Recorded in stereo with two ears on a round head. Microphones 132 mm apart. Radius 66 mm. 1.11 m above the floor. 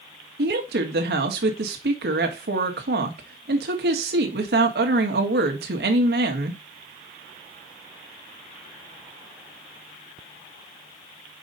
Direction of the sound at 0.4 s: 75° right (ahead or behind).